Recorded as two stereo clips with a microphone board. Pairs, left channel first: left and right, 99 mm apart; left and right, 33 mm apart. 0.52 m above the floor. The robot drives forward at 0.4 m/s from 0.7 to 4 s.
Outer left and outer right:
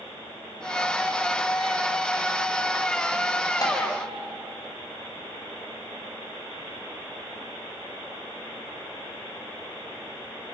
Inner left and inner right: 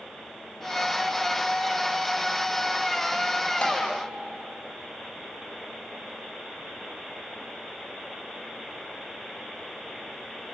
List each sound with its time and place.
3.6 s tapping: 40° left (ahead or behind), 4.5 m